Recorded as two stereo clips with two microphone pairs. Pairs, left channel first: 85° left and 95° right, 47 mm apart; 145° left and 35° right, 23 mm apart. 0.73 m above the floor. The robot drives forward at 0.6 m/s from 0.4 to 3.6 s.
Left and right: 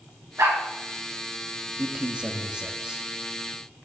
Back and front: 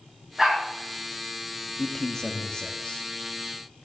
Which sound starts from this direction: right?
A dog barking, at 0.4 s.